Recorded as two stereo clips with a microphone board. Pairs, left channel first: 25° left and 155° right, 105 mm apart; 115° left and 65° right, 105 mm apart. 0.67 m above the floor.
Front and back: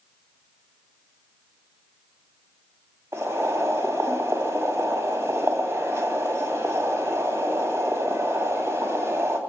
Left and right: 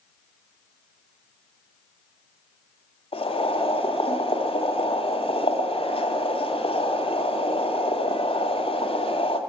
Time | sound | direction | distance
3.1 | boiling | 140° left | 2 m